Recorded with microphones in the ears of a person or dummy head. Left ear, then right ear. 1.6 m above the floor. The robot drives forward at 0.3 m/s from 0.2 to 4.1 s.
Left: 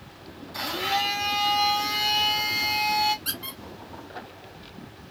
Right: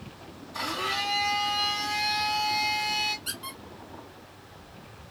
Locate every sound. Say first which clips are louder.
0.5 s a blender: left 3 dB; 15° left (ahead or behind), 2 m; by 3.1 s 20° left (ahead or behind), 1.6 m
3.2 s a squeak: left 3 dB; 20° left (ahead or behind), 1.6 m; by 3.6 s 15° left (ahead or behind), 1.6 m